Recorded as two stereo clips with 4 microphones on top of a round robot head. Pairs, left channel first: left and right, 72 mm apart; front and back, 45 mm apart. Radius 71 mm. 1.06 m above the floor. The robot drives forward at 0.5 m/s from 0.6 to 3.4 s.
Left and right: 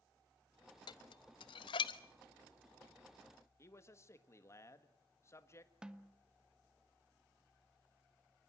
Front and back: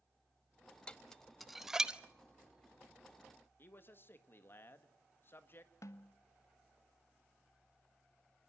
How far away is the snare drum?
About 1.3 m.